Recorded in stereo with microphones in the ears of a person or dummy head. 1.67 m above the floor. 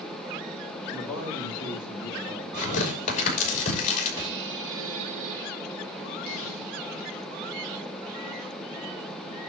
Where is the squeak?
70° right (ahead or behind), 2.5 m.